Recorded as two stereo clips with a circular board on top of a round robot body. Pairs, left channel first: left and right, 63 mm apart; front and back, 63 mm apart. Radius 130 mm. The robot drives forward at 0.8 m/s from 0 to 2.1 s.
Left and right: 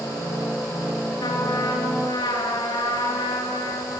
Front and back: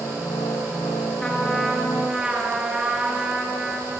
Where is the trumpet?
80° left, 2 m; by 4.0 s 100° left, 2 m.